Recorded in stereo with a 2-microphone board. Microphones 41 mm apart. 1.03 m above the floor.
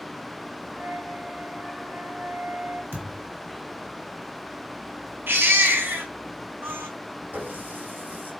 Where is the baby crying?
65° right (ahead or behind), 3.5 m.